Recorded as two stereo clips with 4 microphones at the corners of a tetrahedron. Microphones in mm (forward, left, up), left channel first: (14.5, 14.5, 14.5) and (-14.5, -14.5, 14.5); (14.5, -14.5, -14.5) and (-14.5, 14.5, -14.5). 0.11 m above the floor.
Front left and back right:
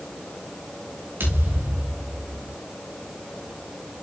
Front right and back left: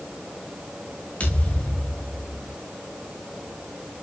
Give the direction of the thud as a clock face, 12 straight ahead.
3 o'clock.